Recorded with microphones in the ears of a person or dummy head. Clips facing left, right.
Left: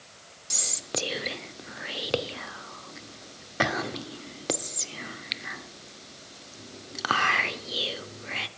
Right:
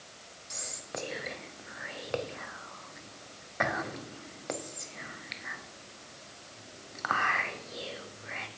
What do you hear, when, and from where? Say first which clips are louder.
0.5 s whispering: left 6 dB; 50° left (ahead or behind), 0.6 m